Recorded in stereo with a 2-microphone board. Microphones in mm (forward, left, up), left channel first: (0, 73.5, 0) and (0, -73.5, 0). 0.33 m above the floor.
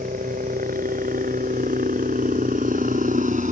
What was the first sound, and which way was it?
A helicopter, 75° right (ahead or behind).